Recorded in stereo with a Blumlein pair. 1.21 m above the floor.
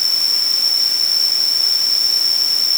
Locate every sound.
0.0 s an insect: 5° left